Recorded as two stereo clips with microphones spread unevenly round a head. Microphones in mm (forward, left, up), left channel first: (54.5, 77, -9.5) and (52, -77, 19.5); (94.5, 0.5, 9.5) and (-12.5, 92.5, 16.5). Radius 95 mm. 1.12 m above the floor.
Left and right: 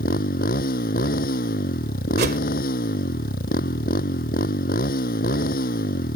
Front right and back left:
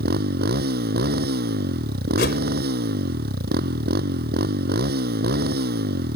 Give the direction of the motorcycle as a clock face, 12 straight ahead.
7 o'clock.